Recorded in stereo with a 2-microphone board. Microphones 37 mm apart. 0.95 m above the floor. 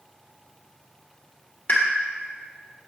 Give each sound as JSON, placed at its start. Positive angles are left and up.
{"t": 1.7, "sound": "a pop", "side_deg": 50, "distance_m": 1.4}